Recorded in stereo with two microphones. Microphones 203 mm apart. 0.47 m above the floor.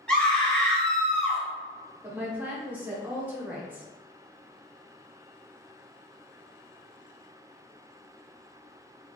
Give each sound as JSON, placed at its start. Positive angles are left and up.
{"t": 0.1, "sound": "a scream", "side_deg": 5, "distance_m": 1.1}
{"t": 2.0, "sound": "a woman speaking", "side_deg": -10, "distance_m": 0.8}